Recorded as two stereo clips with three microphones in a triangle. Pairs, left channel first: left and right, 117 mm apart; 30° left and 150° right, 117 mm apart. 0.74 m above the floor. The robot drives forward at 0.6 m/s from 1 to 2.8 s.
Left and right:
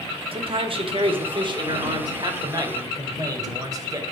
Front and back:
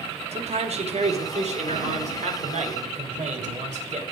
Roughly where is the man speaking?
Behind right.